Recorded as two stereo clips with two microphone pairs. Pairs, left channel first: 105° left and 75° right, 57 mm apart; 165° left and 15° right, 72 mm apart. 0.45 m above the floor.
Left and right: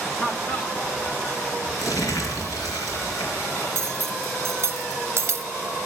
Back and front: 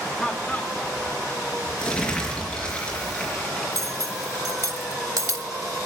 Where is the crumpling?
90° left, 4 m.